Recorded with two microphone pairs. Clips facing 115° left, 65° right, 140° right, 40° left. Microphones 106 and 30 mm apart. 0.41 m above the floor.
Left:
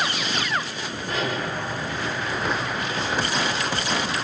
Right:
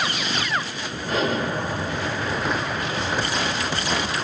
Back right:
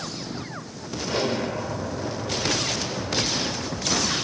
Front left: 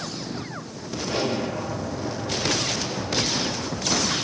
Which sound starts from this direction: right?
An explosion, at 1.1 s.